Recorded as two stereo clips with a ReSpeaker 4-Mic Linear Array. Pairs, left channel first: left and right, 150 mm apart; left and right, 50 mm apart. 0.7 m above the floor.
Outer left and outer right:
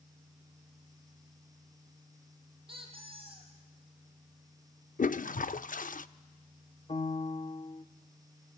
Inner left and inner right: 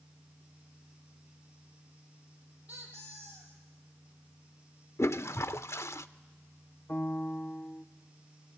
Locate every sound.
2.7 s a squeak: 35° right (ahead or behind), 4 m
5.0 s a toilet flushing: 65° left (ahead or behind), 0.5 m
6.9 s a piano: 40° left (ahead or behind), 0.9 m